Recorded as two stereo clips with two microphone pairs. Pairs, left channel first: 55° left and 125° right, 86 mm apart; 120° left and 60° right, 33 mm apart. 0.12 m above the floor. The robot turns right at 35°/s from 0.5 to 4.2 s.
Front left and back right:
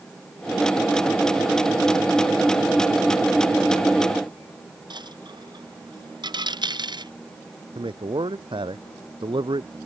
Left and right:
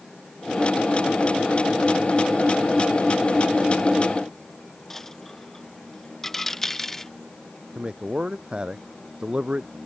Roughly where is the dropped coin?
Behind right.